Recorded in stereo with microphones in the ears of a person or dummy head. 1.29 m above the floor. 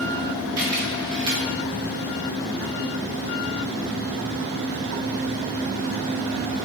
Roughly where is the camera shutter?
Right.